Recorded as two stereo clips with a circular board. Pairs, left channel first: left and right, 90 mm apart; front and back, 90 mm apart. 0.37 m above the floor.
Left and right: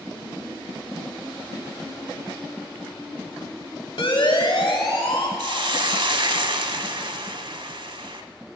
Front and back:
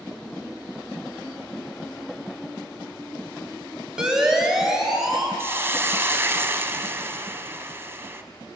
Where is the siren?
100° left, 2 m; by 5.3 s 95° left, 3.5 m.